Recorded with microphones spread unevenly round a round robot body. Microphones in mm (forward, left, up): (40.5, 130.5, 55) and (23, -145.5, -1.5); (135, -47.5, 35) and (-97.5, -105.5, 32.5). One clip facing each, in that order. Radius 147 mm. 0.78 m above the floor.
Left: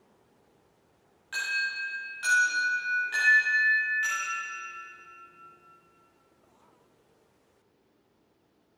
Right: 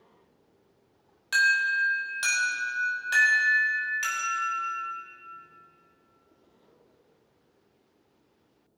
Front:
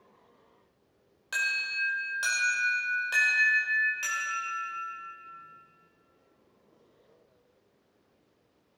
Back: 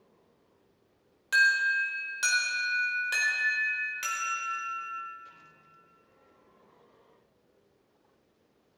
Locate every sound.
1.3 s an alarm: 105° right, 4.5 m